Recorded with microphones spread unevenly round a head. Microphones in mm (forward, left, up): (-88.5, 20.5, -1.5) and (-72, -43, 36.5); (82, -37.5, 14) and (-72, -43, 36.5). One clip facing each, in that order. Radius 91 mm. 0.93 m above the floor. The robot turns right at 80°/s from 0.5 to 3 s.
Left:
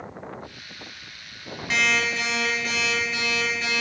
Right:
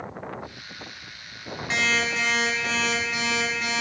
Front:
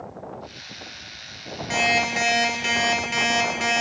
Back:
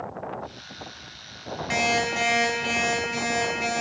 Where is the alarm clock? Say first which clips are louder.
Left 1 dB, front 1 dB; 115° right, 3 m; by 3.8 s 10° right, 3 m.